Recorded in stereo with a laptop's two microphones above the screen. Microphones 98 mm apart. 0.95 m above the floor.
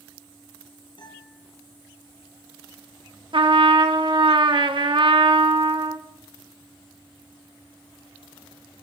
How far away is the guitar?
About 9.5 m.